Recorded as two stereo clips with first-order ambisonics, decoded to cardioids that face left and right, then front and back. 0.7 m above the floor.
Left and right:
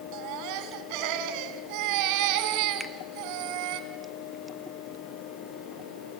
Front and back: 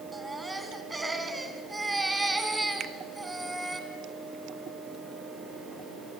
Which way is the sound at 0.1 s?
95° right.